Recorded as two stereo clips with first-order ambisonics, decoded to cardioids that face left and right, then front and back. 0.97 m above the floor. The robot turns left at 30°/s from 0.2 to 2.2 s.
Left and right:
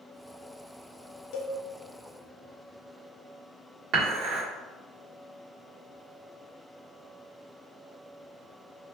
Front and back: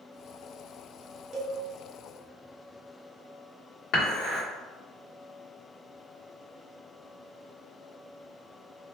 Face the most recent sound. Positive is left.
turn(degrees=-40)